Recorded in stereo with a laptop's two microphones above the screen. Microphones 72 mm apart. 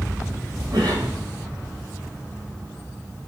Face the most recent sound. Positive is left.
turn(degrees=-80)